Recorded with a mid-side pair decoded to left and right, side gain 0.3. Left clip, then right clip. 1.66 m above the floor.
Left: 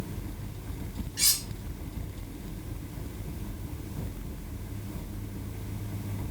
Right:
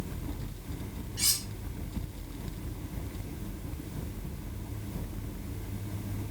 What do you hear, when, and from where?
1.2 s cutlery clinking: 60° left, 4.5 m